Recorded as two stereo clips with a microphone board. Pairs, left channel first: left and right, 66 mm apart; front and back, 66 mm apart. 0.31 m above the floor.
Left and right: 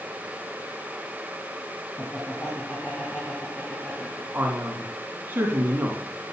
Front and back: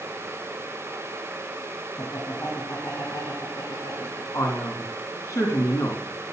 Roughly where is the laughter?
Ahead left.